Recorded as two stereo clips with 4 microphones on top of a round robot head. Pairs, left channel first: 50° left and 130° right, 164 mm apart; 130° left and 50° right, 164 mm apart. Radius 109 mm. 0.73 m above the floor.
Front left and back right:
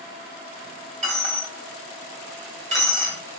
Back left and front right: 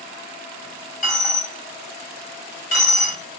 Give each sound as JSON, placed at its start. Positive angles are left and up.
{"t": 1.0, "sound": "a dropped coin", "azimuth_deg": 180, "distance_m": 1.6}